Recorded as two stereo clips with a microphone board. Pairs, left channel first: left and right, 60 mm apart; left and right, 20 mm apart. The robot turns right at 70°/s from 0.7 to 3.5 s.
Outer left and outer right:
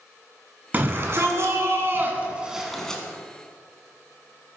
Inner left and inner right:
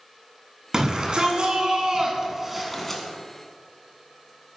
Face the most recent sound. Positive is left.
turn(degrees=55)